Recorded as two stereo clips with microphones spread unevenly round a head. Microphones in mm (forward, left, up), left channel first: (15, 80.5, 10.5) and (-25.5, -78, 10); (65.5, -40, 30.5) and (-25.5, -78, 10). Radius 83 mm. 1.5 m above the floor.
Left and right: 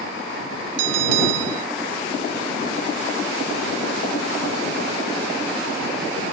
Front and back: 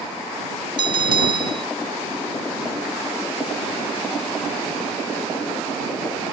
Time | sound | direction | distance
0.8 | a bell | 120° right | ?